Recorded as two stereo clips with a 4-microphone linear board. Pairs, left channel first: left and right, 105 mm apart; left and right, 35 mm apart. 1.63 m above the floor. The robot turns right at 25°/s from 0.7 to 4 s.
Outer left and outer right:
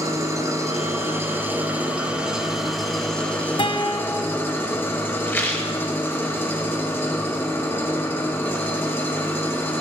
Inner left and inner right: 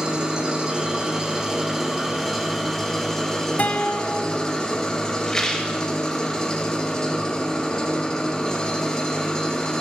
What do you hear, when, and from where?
0.0 s an engine running: 50° right, 0.9 m; by 9.8 s 35° left, 0.9 m
3.6 s a guitar: 55° left (ahead or behind), 0.7 m; by 4.4 s 45° left (ahead or behind), 0.7 m
5.3 s a rattle: 20° left (ahead or behind), 1.1 m